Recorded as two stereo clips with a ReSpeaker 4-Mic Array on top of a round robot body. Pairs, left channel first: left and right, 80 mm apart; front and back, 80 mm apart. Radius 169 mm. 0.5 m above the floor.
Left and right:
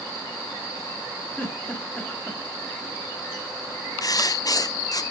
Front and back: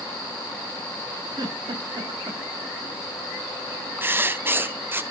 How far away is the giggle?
About 3.5 m.